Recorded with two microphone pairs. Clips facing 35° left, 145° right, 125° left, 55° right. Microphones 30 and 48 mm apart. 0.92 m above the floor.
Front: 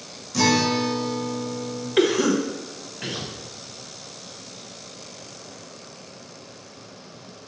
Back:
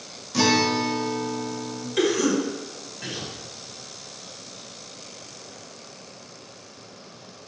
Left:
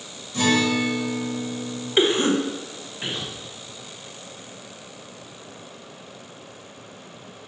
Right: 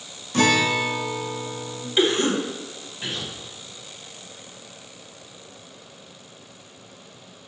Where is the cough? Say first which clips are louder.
Front 2 dB, left 1 dB; 80° left, 0.6 m.